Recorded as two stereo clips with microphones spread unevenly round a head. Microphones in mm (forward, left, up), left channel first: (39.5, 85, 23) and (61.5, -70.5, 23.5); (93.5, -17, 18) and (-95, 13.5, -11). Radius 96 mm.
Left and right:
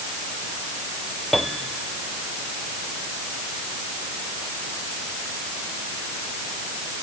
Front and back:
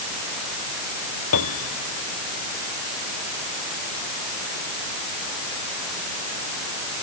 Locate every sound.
1.3 s a piano: 10° left